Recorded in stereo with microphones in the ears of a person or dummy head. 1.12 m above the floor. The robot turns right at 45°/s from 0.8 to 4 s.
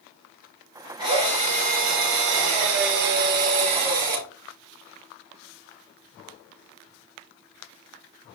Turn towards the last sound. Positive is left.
turn(degrees=-20)